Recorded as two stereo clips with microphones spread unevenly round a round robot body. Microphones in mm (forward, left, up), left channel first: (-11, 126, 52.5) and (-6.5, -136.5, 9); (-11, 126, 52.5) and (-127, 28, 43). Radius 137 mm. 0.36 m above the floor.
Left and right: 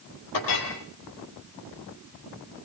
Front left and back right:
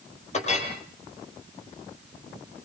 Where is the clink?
85° left, 6.5 m.